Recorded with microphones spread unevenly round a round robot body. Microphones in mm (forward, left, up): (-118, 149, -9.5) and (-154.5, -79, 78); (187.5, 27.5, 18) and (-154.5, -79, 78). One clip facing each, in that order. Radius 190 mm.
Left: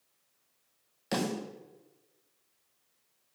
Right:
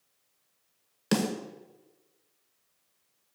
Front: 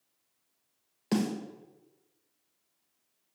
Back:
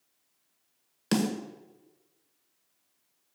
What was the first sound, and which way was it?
A snare drum, 105° right.